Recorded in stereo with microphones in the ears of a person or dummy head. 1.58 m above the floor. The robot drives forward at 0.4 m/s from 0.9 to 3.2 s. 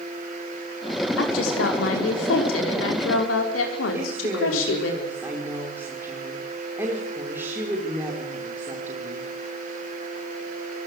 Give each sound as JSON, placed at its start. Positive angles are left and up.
{"t": 1.2, "sound": "a woman speaking", "side_deg": 90, "distance_m": 5.0}
{"t": 3.9, "sound": "a woman speaking", "side_deg": -15, "distance_m": 5.5}